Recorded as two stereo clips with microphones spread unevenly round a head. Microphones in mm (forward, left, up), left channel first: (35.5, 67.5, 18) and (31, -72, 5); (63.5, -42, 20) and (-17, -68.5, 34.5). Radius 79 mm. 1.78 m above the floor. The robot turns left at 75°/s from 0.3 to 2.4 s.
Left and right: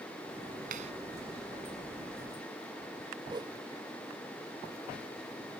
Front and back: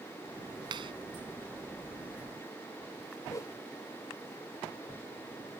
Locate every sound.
0.7 s a clap: 135° right; by 0.9 s 150° right
3.3 s a whoosh: 35° right